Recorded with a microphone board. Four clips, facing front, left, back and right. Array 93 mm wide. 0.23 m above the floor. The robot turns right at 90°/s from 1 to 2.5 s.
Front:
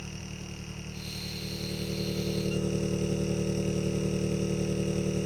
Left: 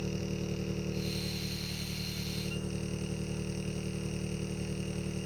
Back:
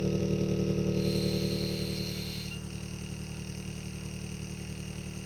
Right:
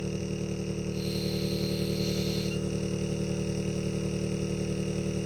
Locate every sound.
0.0 s an engine running: 165° right; by 5.3 s 30° right